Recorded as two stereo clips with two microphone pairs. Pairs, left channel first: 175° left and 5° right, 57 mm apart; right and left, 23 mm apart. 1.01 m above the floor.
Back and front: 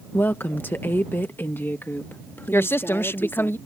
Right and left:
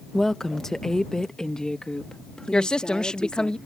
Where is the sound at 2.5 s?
135° right.